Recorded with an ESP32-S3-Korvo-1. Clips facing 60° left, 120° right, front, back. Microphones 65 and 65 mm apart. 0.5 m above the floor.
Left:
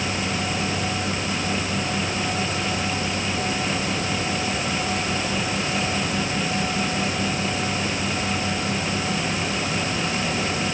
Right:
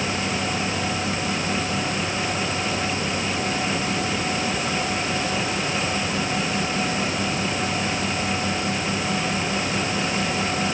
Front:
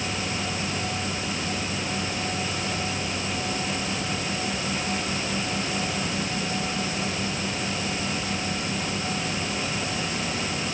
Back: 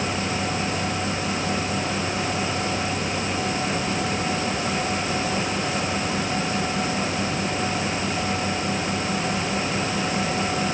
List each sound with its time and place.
Only background noise.